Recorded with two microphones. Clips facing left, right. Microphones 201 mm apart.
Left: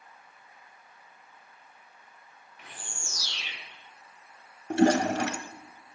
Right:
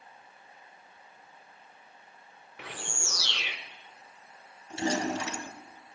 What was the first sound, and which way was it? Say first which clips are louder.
A bird: right 7 dB; 75° right (ahead or behind).